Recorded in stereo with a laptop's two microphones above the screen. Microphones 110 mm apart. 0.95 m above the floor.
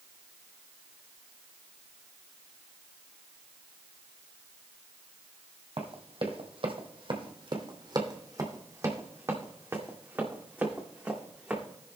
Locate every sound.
5.8 s running footsteps: 65° right (ahead or behind), 2 m; by 11.6 s 10° right (ahead or behind), 4 m